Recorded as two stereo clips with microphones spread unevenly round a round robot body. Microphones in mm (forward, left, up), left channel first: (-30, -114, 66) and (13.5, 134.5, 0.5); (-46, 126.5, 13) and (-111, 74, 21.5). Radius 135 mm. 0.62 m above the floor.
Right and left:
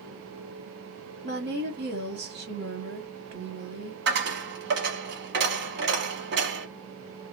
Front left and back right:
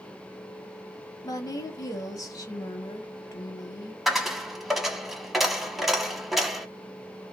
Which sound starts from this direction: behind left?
A dropped coin, at 4.1 s.